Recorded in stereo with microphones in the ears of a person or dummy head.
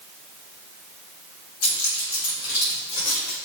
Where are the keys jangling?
70° left (ahead or behind), 2.5 m; by 3.4 s 85° left, 5 m.